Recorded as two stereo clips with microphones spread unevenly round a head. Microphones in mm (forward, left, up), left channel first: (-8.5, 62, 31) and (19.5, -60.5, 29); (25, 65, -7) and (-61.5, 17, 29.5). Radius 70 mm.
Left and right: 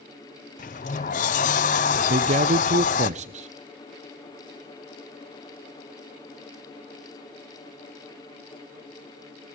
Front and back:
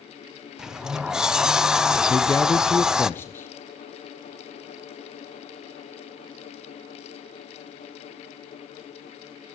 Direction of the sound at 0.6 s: 130° left.